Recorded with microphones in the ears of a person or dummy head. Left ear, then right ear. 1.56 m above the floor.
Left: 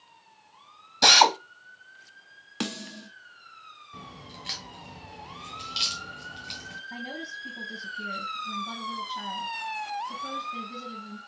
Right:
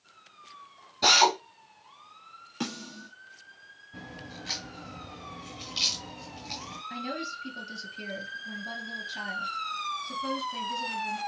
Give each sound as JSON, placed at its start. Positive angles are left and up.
{"t": 1.0, "sound": "a drill", "side_deg": 55, "distance_m": 1.1}
{"t": 2.6, "sound": "a snare drum", "side_deg": 30, "distance_m": 0.9}
{"t": 3.9, "sound": "a crack", "side_deg": 20, "distance_m": 1.5}
{"t": 6.9, "sound": "a woman speaking", "side_deg": -65, "distance_m": 2.5}